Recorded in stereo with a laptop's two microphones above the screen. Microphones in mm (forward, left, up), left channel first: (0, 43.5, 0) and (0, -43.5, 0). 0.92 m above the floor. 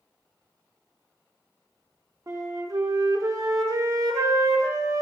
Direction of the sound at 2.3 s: 40° right (ahead or behind).